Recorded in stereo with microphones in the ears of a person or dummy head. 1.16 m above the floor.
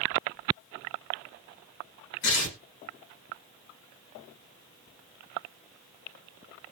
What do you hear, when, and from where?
2.2 s tearing paper: 60° left (ahead or behind), 1.3 m